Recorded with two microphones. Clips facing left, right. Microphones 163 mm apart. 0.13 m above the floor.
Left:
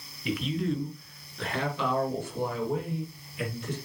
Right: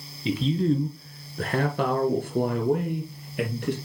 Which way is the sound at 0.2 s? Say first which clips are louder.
Right 6 dB; 25° right (ahead or behind).